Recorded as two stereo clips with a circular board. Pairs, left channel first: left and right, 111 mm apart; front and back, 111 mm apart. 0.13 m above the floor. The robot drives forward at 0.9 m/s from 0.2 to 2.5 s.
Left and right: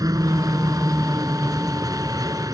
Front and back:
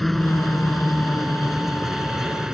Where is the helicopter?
90° right; by 2.5 s 100° right.